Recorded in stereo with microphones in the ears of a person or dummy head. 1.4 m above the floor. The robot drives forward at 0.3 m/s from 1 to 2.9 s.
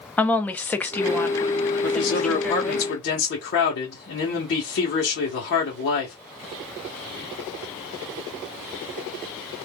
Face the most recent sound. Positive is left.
turn(degrees=65)  # may be behind; listen again after turning